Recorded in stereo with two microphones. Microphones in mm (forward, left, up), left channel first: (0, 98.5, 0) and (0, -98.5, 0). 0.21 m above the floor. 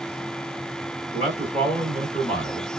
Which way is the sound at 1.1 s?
35° right (ahead or behind).